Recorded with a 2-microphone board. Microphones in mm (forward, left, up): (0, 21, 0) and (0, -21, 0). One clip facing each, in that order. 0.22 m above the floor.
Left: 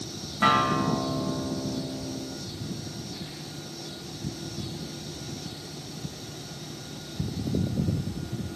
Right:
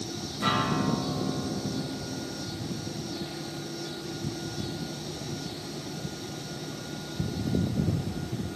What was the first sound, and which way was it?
A guitar, 50° left (ahead or behind).